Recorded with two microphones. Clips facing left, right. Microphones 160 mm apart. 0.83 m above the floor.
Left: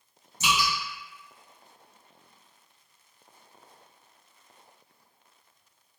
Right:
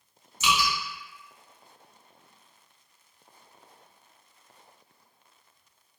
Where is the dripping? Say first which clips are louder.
Right 1 dB; 40° left (ahead or behind), 1.6 m.